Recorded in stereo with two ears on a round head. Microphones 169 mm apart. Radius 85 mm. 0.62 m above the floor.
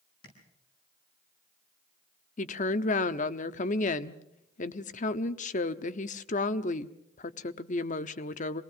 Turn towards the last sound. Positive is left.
turn(degrees=40)  # may be behind; listen again after turning